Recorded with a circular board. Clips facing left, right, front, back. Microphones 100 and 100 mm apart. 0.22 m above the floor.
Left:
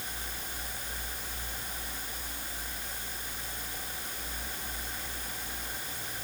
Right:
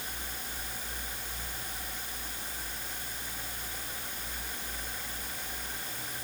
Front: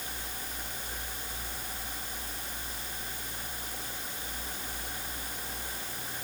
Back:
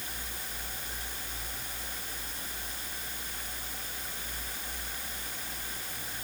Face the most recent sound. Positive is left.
No sound to turn to.